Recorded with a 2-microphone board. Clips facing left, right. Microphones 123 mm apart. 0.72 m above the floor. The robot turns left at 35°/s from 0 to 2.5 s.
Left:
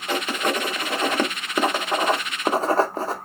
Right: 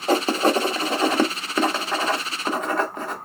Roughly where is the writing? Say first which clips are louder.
Right 6 dB; right.